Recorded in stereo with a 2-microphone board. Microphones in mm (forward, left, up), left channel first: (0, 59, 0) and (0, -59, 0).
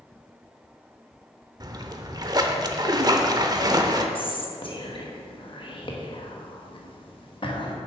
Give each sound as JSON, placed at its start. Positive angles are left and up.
{"t": 1.6, "sound": "a splash", "side_deg": -35, "distance_m": 0.7}
{"t": 4.2, "sound": "whispering", "side_deg": 45, "distance_m": 1.2}